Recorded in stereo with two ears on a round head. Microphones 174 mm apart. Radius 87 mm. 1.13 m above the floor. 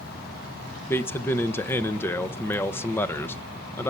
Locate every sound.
0.9 s a man speaking: 10° left (ahead or behind), 1.0 m